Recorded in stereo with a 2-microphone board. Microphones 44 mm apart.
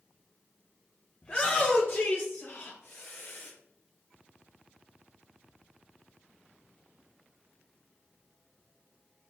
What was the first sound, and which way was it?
A shout, 25° left (ahead or behind).